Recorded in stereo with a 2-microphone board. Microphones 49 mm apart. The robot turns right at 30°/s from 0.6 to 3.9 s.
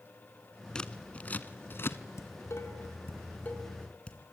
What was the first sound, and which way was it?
Scissors, 15° left (ahead or behind).